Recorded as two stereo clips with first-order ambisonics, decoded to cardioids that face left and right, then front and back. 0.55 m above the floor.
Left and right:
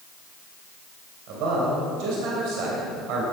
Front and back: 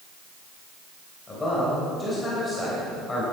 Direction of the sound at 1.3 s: 80° right.